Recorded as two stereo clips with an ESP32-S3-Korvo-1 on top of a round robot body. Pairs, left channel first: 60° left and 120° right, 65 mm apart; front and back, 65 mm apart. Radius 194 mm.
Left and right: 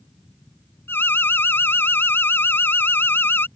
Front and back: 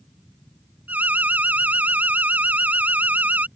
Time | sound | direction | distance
0.9 | an alarm | 115° left | ?